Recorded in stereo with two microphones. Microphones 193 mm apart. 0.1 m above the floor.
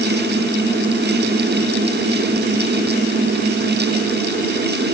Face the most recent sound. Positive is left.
No sound to turn to.